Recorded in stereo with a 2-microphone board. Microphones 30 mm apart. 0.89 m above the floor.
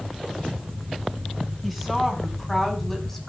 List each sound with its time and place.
1.6 s a woman speaking: centre (ahead or behind), 6.5 m; by 3.3 s 10° left (ahead or behind), 5.5 m